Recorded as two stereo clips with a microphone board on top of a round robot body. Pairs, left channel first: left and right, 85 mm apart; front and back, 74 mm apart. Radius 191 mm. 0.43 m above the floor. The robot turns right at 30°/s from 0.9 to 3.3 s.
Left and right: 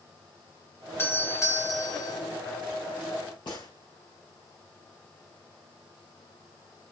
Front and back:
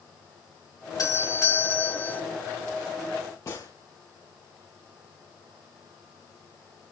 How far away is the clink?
I don't hear a clink.